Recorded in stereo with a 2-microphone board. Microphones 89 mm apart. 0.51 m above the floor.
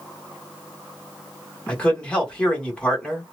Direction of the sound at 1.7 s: 10° left (ahead or behind).